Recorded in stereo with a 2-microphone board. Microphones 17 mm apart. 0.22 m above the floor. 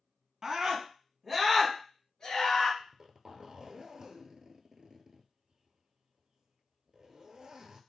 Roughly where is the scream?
Right.